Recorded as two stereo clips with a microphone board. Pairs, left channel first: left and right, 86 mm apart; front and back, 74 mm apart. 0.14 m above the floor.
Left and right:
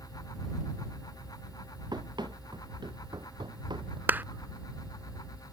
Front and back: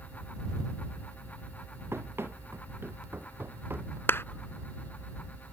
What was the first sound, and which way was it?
Running footsteps, 125° right.